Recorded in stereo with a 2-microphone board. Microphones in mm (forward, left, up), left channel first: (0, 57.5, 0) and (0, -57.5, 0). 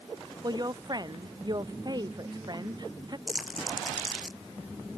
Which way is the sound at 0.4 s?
35° right (ahead or behind).